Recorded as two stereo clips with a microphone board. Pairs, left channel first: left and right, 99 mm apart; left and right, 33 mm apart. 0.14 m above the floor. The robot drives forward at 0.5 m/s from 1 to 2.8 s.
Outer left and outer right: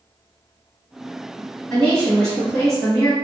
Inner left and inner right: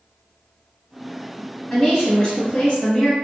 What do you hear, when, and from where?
1.7 s a woman speaking: 10° left (ahead or behind), 1.3 m; by 3.1 s 5° left (ahead or behind), 1.7 m